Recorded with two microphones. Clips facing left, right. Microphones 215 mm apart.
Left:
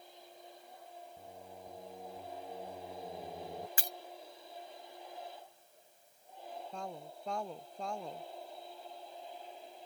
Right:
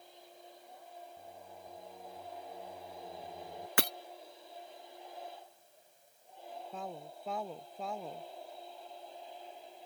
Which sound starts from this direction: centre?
A woman speaking, at 6.7 s.